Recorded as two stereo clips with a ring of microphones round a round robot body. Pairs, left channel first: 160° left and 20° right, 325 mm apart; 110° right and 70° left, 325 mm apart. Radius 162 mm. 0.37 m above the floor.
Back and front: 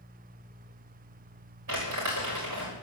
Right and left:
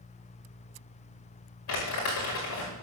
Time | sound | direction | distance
1.7 | crumpling | 65° right | 6 m